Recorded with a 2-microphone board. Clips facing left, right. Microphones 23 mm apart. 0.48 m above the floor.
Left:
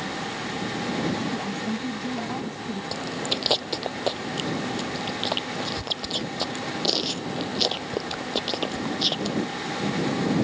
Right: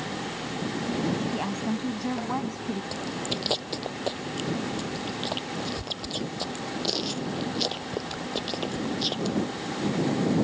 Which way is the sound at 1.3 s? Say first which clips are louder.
Even; 35° right (ahead or behind).